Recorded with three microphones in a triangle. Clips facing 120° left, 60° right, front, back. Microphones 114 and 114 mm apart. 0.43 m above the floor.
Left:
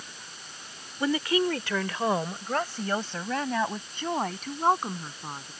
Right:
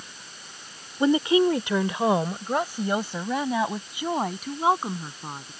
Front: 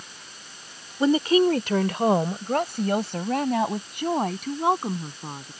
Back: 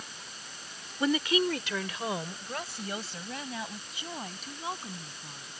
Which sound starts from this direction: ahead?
A woman speaking, at 1.0 s.